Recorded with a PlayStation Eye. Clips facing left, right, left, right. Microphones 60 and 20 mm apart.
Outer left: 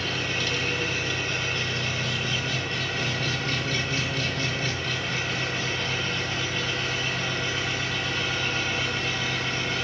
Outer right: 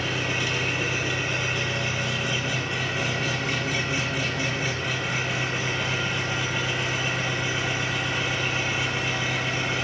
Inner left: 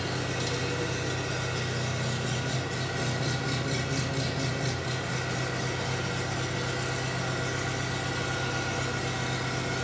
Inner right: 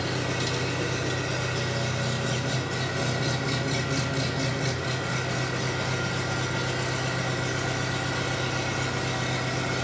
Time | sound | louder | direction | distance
0.0 | an engine running | outer right 2 dB, inner right 3 dB | 15° right (ahead or behind) | 3 m